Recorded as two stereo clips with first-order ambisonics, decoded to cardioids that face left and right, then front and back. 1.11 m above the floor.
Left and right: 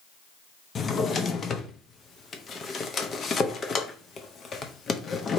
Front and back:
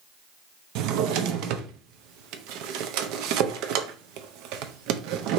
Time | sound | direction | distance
0.8 | a drawer | 155° left | 0.6 m